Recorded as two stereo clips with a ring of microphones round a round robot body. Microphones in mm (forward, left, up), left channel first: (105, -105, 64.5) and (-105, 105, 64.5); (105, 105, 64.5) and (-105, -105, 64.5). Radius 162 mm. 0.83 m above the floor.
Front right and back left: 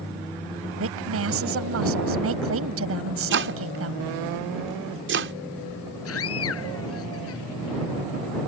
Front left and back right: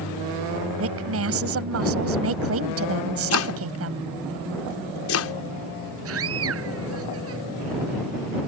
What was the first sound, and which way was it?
A woman speaking, straight behind.